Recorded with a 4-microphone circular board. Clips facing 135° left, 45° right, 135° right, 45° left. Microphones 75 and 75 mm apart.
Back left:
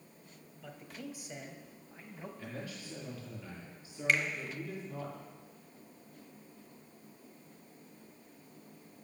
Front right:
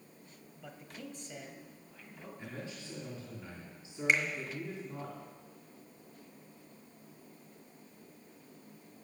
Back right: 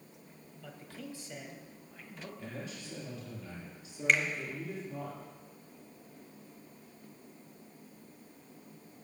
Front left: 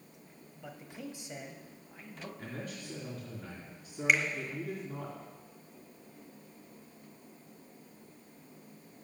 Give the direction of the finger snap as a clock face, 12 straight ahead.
1 o'clock.